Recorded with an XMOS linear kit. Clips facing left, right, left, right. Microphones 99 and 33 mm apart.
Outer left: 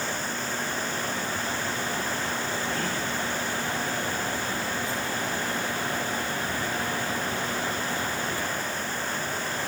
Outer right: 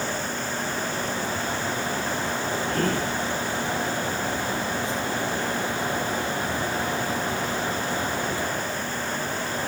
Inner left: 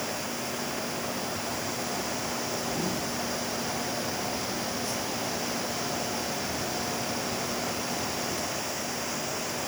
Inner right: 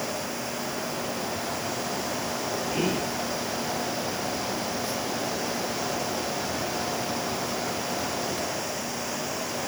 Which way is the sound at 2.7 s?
50° right (ahead or behind).